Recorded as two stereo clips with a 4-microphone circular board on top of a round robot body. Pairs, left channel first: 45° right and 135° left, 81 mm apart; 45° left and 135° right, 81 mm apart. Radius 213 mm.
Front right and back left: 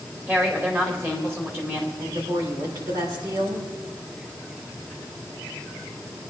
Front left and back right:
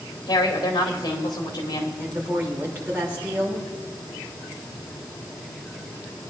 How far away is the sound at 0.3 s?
About 3.5 m.